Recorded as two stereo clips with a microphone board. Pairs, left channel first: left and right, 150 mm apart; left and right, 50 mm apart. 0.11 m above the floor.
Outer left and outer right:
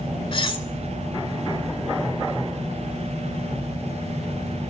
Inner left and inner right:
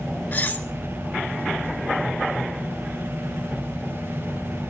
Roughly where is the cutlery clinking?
Left.